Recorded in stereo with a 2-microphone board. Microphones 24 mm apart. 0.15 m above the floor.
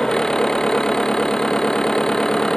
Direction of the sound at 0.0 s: 25° left (ahead or behind).